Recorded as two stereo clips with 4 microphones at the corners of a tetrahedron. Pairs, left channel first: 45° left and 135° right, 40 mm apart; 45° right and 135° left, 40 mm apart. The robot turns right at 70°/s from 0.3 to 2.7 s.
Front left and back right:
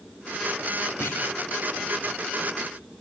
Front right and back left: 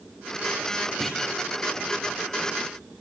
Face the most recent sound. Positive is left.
turn(degrees=155)